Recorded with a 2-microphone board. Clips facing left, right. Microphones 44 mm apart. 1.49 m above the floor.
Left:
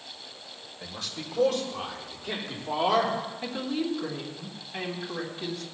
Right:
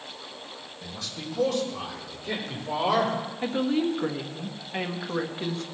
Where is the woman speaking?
35° right (ahead or behind), 1.3 m.